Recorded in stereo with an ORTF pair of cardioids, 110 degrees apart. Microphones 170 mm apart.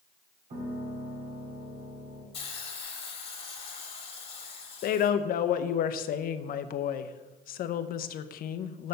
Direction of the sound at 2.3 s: 35° left.